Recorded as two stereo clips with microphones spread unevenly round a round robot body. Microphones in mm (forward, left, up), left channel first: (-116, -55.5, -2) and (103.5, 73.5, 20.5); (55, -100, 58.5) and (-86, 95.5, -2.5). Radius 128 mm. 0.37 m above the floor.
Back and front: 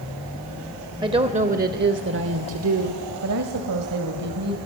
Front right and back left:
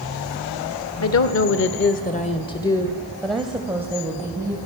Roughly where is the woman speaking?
Ahead right.